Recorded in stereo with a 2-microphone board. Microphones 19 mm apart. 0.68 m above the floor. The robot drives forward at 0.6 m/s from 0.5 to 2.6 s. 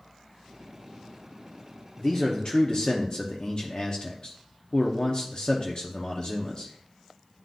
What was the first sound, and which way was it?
A man speaking, 40° left (ahead or behind).